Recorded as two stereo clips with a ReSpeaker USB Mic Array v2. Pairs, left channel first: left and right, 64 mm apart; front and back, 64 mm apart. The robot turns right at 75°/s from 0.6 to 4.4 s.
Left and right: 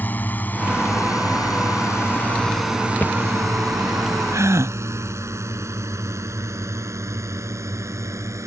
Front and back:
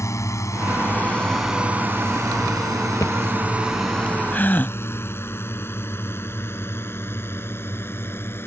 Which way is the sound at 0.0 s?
30° left.